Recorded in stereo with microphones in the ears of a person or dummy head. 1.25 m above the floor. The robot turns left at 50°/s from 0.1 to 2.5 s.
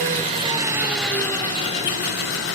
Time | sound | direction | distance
0.0 | an engine running | 135° right | 2 m